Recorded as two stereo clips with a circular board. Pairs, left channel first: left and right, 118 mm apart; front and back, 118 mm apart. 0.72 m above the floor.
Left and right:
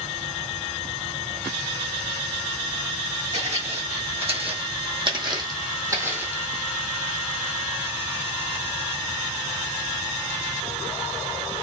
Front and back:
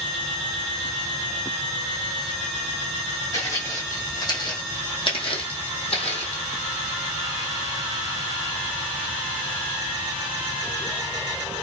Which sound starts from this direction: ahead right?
Footsteps, at 3.3 s.